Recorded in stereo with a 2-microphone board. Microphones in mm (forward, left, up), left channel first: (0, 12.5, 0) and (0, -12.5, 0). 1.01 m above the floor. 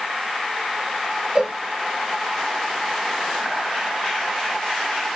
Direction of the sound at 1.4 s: 30° right (ahead or behind).